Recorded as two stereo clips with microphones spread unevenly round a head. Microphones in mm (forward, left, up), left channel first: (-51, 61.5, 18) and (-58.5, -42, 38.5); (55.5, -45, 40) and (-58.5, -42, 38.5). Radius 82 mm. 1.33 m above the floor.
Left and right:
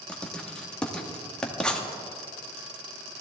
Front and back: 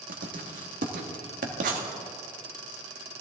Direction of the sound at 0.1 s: 170° left.